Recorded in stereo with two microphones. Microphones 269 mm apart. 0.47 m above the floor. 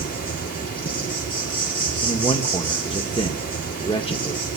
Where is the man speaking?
20° left (ahead or behind), 0.9 m.